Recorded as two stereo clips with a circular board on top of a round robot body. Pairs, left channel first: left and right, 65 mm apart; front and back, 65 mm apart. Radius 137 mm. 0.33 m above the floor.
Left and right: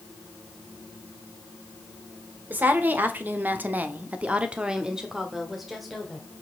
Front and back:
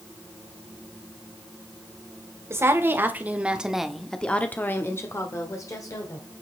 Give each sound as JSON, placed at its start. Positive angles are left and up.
{"t": 2.5, "sound": "a woman speaking", "azimuth_deg": -145, "distance_m": 1.8}